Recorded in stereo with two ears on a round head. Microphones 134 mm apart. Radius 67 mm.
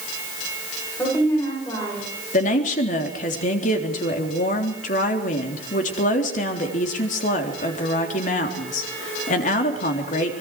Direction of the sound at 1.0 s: 15° left (ahead or behind).